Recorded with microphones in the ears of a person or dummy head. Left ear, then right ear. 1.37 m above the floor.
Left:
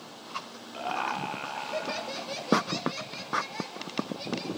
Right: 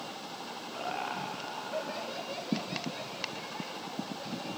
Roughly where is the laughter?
Centre.